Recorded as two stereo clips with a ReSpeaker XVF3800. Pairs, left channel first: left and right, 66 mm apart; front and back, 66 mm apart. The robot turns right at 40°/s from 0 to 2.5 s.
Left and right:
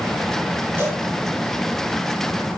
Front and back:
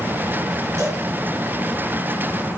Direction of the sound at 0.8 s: 145° right.